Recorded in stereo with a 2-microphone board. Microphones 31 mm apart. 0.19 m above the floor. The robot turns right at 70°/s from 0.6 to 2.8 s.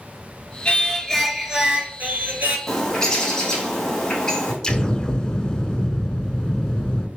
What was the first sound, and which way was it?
Singing, 140° left.